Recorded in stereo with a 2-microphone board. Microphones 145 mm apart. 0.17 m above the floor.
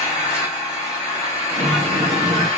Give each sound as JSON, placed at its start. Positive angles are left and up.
{"t": 0.0, "sound": "an engine running", "side_deg": 20, "distance_m": 3.0}
{"t": 1.5, "sound": "a sliding door", "side_deg": -75, "distance_m": 1.0}